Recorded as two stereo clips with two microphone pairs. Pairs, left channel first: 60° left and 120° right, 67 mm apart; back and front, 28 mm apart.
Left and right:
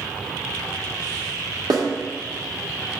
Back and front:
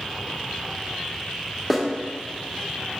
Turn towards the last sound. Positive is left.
turn(degrees=-100)